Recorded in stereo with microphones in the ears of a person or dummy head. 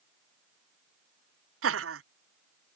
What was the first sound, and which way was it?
Laughter, 60° right (ahead or behind).